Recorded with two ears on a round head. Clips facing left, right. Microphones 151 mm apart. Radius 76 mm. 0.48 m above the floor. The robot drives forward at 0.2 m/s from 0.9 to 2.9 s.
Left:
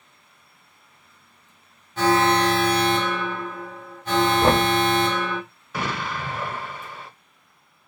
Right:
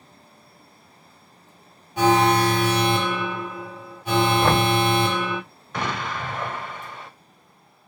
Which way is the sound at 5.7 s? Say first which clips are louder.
Even; 5° left (ahead or behind).